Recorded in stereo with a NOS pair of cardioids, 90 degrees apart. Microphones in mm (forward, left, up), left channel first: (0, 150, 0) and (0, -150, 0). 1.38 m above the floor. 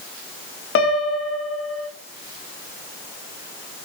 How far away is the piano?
About 2.5 m.